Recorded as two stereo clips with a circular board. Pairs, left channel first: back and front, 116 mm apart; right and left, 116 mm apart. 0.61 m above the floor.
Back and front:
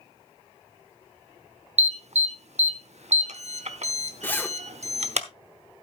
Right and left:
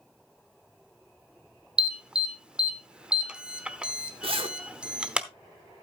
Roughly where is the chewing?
No chewing in this recording.